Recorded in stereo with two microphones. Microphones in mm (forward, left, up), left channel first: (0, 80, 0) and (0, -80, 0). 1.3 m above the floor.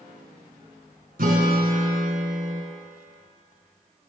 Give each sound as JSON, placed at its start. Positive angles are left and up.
{"t": 1.2, "sound": "a guitar", "side_deg": -65, "distance_m": 3.0}